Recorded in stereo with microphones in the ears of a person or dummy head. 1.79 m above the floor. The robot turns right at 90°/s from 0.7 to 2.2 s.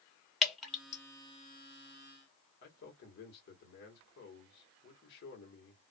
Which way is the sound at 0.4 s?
Centre (ahead or behind).